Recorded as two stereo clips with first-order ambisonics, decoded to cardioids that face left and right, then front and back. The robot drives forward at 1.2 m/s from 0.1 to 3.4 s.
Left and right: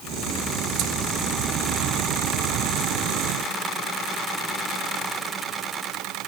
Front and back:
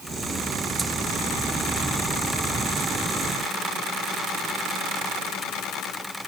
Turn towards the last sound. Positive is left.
No sound to turn to.